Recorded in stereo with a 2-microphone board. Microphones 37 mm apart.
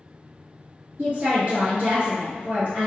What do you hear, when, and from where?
1.0 s a woman speaking: 45° right (ahead or behind), 1.5 m